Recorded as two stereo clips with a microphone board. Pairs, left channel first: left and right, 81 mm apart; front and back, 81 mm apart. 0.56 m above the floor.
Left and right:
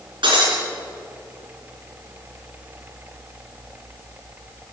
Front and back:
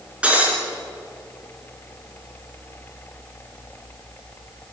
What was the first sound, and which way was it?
Breaking glass, 105° right.